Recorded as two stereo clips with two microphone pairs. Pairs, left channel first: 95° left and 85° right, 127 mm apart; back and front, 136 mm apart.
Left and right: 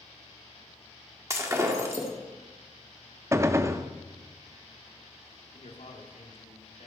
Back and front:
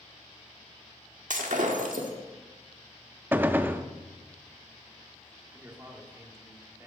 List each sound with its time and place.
1.3 s breaking glass: 20° right, 1.6 m
3.3 s a gunshot: 55° right, 0.5 m
5.5 s a man speaking: 70° left, 2.0 m